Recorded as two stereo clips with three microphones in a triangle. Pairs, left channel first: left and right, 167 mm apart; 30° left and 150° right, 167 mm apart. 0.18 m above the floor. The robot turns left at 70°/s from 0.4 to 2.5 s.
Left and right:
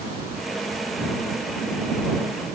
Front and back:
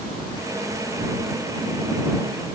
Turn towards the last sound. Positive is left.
No sound to turn to.